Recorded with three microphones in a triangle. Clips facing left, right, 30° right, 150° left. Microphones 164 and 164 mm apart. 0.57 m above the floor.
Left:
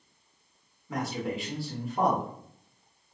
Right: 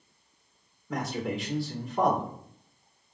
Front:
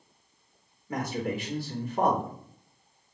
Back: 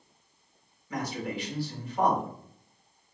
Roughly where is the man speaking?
Ahead.